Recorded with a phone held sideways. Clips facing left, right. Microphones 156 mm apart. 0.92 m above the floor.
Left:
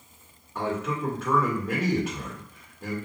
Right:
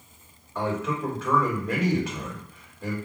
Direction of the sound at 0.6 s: Centre (ahead or behind).